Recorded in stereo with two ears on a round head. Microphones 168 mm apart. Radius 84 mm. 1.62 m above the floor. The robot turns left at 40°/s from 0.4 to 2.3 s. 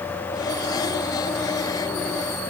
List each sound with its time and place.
Only background noise.